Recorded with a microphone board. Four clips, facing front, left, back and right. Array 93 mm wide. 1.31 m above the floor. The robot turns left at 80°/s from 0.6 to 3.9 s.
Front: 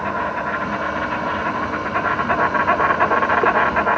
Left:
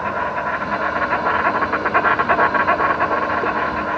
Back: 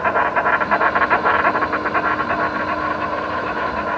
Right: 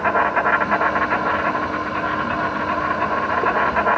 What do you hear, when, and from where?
0.0 s an insect: 145° right, 1.3 m; by 4.0 s 50° right, 1.3 m